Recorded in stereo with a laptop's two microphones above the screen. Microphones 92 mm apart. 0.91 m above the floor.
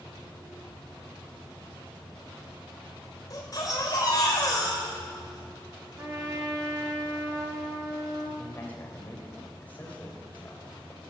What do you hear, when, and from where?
3.3 s a baby crying: 40° left (ahead or behind), 2.5 m
6.0 s a trumpet: 40° right (ahead or behind), 1.3 m
8.4 s a man speaking: 20° left (ahead or behind), 3.5 m